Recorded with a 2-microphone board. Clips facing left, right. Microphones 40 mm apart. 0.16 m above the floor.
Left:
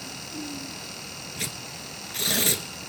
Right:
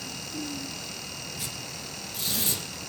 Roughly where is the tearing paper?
Left.